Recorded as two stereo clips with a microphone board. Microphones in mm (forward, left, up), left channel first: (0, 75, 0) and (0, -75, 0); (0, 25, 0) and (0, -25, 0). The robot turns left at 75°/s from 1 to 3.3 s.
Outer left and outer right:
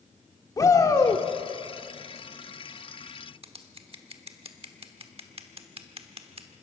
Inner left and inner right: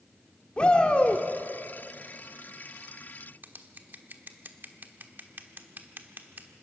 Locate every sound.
0.6 s a shout: 25° left (ahead or behind), 1.5 m; by 1.2 s 15° left (ahead or behind), 1.5 m
3.4 s scissors: 45° right (ahead or behind), 1.2 m